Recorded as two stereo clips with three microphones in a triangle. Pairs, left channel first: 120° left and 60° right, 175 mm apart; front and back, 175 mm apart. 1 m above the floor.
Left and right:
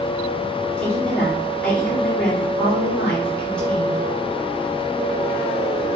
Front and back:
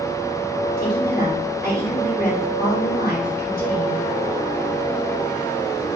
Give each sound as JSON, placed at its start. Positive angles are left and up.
{"t": 0.8, "sound": "a woman speaking", "azimuth_deg": 35, "distance_m": 1.9}